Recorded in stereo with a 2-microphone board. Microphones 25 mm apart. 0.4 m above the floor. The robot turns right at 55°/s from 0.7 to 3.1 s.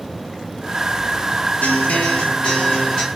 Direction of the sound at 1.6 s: 95° left.